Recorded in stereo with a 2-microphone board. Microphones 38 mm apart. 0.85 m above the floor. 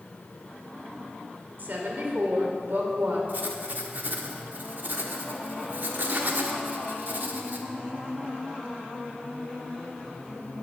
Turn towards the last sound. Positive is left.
turn(degrees=-60)  # may be behind; listen again after turning